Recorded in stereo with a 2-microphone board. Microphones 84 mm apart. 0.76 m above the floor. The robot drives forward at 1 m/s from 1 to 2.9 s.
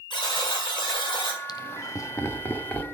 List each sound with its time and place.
0.1 s a buzzer: 65° left (ahead or behind), 6 m
1.5 s laughter: 55° left (ahead or behind), 0.6 m; by 2.8 s 20° left (ahead or behind), 1.5 m